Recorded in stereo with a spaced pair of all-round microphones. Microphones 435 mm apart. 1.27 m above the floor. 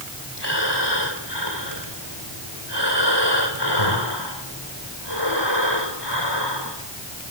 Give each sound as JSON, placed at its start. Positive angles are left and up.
{"t": 0.4, "sound": "breathing", "side_deg": 65, "distance_m": 4.0}